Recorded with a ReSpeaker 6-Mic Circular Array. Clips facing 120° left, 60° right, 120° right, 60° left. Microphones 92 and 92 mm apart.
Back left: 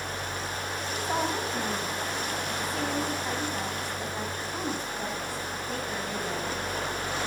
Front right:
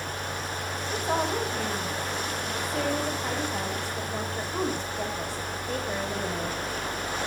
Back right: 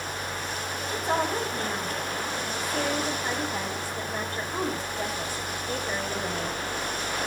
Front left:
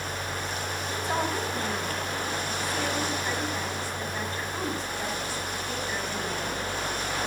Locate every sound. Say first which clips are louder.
0.9 s a woman speaking: front right 2 dB, back right 3 dB; 75° right, 6 m